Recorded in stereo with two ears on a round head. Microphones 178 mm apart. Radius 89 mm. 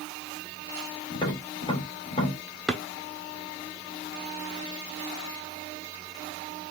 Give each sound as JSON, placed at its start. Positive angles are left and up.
{"t": 1.1, "sound": "tapping", "side_deg": 25, "distance_m": 1.9}
{"t": 2.7, "sound": "a drawer", "side_deg": 0, "distance_m": 0.6}